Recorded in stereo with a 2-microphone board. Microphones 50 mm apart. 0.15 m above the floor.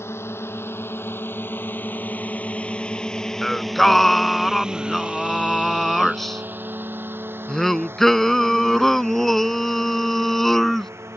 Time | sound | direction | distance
0.0 | a drone | 60° left (ahead or behind) | ?
3.4 | singing | 5° left (ahead or behind) | ?